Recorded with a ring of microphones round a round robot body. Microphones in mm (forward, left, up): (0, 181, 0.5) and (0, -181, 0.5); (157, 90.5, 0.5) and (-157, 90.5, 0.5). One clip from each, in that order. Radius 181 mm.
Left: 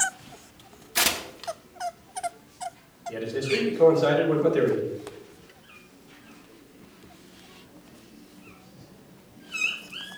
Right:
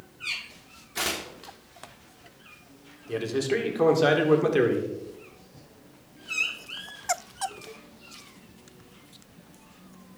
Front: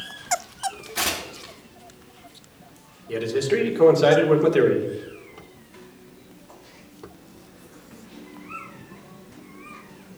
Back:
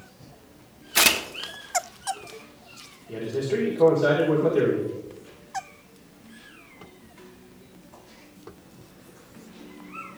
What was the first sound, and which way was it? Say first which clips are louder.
Tearing paper: left 5 dB, back 9 dB; 155° left.